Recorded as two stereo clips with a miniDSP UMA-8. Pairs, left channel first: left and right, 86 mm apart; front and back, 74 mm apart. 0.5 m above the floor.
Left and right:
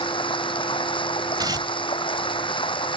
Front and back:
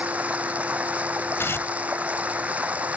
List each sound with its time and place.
0.0 s running water: 105° left
1.4 s tearing paper: 55° right